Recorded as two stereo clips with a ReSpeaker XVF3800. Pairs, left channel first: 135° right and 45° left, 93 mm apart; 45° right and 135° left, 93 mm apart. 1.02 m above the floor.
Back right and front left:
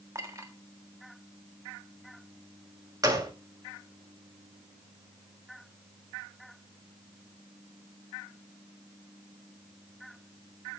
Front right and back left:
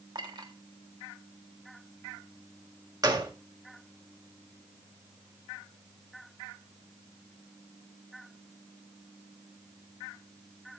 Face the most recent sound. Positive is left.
turn(degrees=90)